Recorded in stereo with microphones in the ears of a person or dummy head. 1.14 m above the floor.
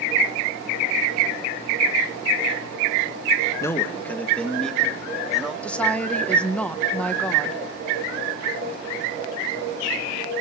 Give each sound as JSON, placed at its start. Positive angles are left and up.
{"t": 3.6, "sound": "a man speaking", "side_deg": 15, "distance_m": 1.5}
{"t": 5.6, "sound": "a woman speaking", "side_deg": 5, "distance_m": 1.0}